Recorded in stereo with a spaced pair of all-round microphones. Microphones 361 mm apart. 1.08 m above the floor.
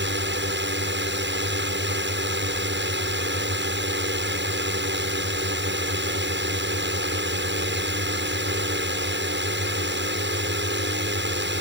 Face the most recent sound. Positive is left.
turn(degrees=-30)  # may be behind; listen again after turning